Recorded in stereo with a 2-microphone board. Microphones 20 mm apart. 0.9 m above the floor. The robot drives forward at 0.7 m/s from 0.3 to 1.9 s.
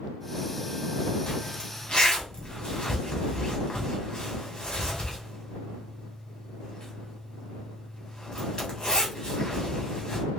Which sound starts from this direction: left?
A zipper, at 1.3 s.